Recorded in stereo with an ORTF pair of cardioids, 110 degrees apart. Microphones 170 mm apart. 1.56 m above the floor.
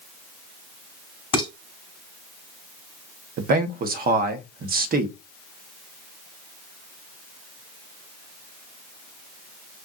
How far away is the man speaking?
About 0.9 m.